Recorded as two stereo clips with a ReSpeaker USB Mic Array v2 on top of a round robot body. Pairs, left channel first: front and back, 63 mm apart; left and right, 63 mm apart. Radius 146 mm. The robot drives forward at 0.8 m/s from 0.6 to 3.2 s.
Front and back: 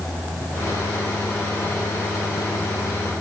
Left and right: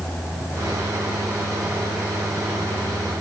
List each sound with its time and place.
Only background noise.